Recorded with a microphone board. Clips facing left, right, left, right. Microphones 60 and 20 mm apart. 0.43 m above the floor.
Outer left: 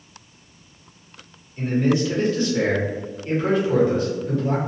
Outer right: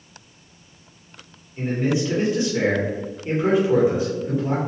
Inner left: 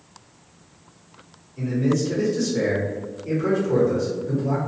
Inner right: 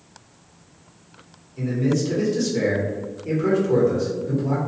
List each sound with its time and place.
1.6 s a man speaking: 15° right (ahead or behind), 1.1 m